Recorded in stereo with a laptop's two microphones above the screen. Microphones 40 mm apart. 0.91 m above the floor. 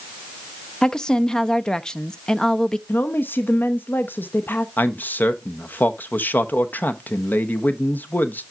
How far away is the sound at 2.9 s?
About 0.6 m.